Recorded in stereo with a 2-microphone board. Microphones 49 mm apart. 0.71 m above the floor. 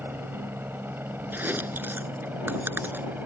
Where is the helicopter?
50° right (ahead or behind); by 3.2 s 40° right (ahead or behind).